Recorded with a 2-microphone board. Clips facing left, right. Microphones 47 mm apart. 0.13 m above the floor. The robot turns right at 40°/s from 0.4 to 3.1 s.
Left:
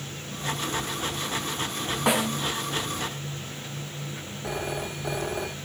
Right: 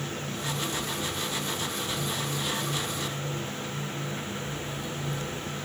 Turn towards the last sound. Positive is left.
turn(degrees=65)  # may be behind; listen again after turning